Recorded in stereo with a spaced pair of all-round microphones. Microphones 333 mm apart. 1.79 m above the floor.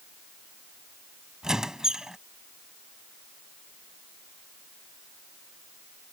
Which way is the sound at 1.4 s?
Centre (ahead or behind).